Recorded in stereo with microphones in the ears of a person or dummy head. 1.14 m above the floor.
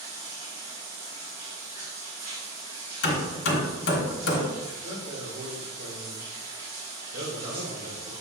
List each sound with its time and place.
0.0 s running water: 35° right (ahead or behind), 1.5 m
3.0 s hammering: 75° left (ahead or behind), 1.1 m
4.7 s a man speaking: 30° right (ahead or behind), 1.1 m